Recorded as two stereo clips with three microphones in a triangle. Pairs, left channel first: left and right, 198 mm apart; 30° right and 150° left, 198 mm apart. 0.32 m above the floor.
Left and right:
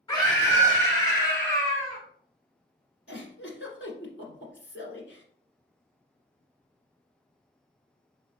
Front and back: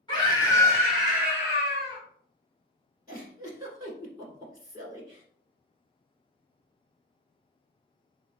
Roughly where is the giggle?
Left.